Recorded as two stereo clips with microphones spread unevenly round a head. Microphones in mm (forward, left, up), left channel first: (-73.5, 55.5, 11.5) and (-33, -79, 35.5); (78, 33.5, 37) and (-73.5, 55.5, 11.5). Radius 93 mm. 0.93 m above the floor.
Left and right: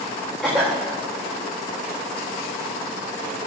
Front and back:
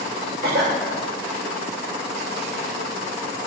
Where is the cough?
165° right, 3.5 m.